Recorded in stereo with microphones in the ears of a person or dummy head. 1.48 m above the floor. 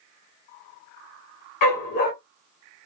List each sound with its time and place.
1.6 s a dog barking: 40° left (ahead or behind), 1.2 m